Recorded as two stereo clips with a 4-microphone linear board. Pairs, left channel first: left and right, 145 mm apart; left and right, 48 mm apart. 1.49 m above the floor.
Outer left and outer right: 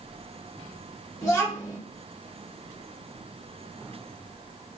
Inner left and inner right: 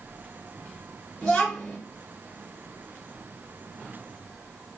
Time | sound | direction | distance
1.2 | a child speaking | 20° left (ahead or behind) | 2.5 m